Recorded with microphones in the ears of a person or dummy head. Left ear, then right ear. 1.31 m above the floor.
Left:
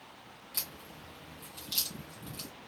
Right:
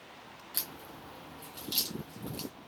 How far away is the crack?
About 1.7 m.